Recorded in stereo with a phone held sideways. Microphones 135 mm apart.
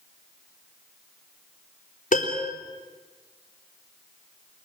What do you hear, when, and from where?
2.1 s a piano: 75° left (ahead or behind), 3.5 m